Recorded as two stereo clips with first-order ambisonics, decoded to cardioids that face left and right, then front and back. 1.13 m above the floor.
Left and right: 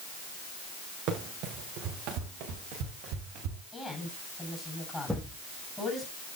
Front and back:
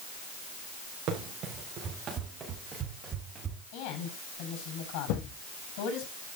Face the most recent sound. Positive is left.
turn(degrees=5)